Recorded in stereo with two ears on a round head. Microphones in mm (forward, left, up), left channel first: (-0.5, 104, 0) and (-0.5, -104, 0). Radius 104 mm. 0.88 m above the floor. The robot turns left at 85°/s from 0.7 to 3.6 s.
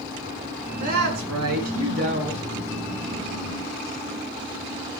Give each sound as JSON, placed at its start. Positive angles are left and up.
{"t": 0.8, "sound": "a woman speaking", "azimuth_deg": -35, "distance_m": 9.5}